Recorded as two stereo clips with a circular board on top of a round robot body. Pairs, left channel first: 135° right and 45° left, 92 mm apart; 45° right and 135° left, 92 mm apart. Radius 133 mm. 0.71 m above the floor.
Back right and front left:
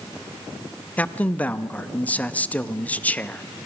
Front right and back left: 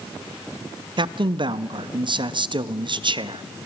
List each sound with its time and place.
1.0 s a man speaking: 155° left, 0.7 m